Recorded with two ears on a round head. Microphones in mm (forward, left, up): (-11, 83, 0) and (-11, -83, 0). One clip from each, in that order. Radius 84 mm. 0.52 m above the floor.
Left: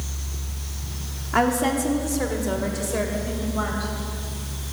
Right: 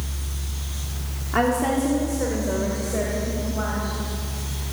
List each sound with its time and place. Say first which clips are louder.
1.3 s a woman speaking: even; 20° left (ahead or behind), 1.1 m; by 3.9 s 70° left (ahead or behind), 3 m